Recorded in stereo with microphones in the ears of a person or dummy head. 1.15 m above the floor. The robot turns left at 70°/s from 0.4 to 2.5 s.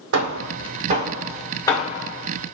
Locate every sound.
0.1 s hammering: 75° right (ahead or behind), 2 m; by 2.4 s 65° left (ahead or behind), 2 m